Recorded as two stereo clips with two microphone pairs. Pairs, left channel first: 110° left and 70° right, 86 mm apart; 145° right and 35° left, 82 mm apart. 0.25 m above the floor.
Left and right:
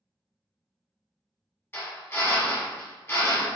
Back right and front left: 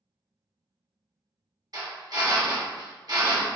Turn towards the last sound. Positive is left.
turn(degrees=45)